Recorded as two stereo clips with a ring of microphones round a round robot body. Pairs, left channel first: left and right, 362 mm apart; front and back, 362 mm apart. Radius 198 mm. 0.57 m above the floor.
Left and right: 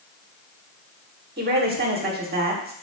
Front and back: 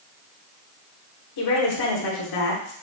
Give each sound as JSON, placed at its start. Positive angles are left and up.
{"t": 1.4, "sound": "a woman speaking", "azimuth_deg": -30, "distance_m": 1.3}